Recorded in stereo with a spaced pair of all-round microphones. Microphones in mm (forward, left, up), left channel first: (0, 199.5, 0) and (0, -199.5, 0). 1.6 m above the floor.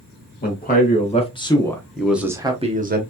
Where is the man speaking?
25° left (ahead or behind), 1.8 m; by 3.0 s 25° right (ahead or behind), 1.0 m.